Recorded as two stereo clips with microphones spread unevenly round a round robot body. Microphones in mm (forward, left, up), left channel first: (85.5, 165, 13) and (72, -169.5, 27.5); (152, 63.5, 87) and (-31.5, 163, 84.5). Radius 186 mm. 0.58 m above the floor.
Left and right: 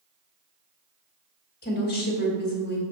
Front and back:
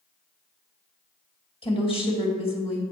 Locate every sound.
1.6 s a woman speaking: 30° left, 2 m